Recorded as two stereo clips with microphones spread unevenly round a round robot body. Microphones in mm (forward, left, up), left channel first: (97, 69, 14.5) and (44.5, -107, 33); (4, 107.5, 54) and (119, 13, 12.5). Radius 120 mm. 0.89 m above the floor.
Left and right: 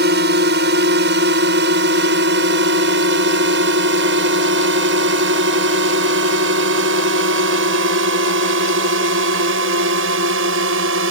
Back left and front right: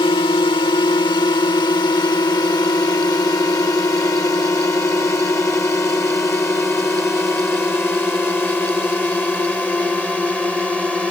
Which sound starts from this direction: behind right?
A drone, at 0.0 s.